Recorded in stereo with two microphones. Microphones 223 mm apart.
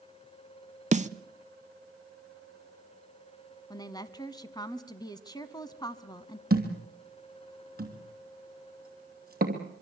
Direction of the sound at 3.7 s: 15° left (ahead or behind).